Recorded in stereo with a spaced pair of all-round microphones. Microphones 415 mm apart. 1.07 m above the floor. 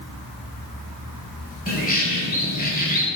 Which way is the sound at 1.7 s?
20° left (ahead or behind).